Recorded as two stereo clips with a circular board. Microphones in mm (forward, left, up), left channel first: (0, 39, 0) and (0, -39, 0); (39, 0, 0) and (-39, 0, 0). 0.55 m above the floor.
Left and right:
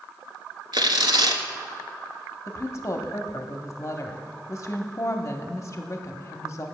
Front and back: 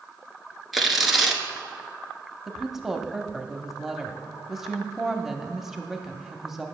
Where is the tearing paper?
95° right, 1.1 m.